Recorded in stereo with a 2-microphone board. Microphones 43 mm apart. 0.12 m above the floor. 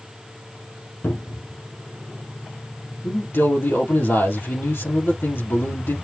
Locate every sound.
1.0 s a cupboard door: 65° left (ahead or behind), 3 m
3.0 s a man speaking: 65° left (ahead or behind), 2.5 m